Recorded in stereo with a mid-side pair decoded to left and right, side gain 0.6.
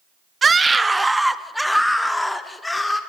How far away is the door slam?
I don't hear a door slam.